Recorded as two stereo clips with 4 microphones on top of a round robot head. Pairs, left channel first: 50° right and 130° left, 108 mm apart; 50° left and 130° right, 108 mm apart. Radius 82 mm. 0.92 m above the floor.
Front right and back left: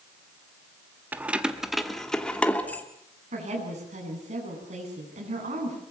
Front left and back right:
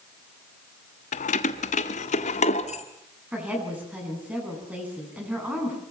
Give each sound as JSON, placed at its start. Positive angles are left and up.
{"t": 1.1, "sound": "keys jangling", "azimuth_deg": 55, "distance_m": 1.2}
{"t": 3.3, "sound": "a woman speaking", "azimuth_deg": 150, "distance_m": 9.5}